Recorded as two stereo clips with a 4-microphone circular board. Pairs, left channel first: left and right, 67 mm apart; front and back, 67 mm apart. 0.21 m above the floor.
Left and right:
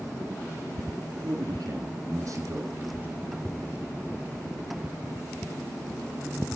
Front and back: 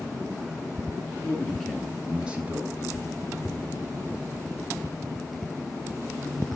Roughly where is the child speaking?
Ahead right.